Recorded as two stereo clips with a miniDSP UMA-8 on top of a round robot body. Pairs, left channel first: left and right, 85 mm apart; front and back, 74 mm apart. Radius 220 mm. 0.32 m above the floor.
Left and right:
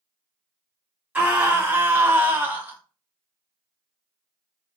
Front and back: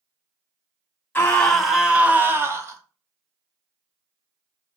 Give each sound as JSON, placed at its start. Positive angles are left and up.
{"t": 1.1, "sound": "a scream", "azimuth_deg": -35, "distance_m": 1.1}